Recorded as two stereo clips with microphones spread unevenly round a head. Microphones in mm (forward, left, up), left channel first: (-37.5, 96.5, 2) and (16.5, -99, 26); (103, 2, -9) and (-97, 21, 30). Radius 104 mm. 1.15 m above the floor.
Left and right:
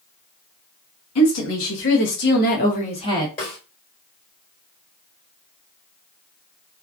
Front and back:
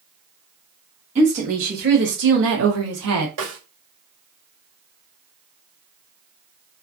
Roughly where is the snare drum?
Behind.